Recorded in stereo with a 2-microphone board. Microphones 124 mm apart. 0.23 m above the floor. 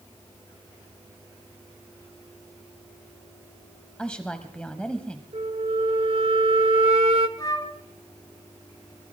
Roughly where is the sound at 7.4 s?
Left.